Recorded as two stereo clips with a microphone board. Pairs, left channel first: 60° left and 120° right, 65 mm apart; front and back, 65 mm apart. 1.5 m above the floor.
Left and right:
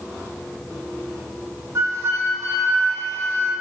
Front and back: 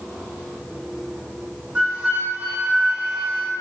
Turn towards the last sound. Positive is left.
turn(degrees=-115)